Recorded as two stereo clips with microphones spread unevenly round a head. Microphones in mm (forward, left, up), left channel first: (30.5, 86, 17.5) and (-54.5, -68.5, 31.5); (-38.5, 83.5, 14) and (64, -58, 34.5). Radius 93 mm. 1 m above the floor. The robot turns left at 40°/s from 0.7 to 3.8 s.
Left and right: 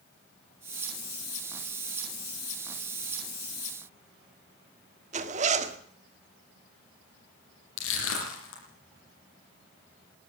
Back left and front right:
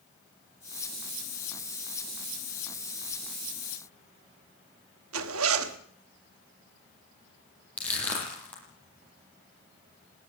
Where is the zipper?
65° right, 1.5 m.